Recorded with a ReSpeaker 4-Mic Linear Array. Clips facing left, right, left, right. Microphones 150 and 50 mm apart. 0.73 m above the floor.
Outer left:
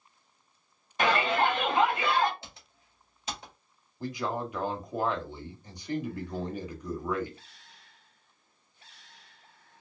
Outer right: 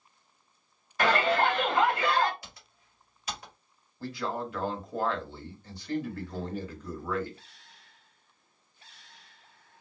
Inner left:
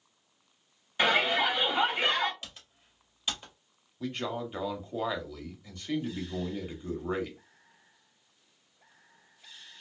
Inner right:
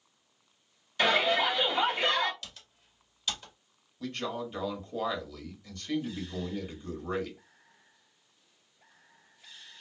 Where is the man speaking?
15° left (ahead or behind), 1.0 m.